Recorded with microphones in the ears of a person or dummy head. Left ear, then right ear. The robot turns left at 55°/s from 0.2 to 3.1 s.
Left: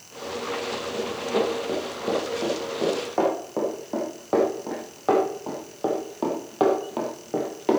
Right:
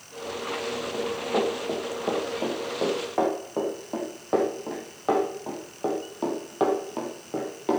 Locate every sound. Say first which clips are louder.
0.9 s running footsteps: left 1 dB; 50° right (ahead or behind), 5 m; by 7.8 s 15° left (ahead or behind), 1.9 m